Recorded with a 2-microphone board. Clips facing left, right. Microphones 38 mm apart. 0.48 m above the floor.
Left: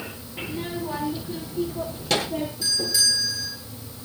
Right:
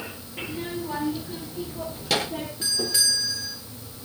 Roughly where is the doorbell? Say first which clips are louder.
Even; right.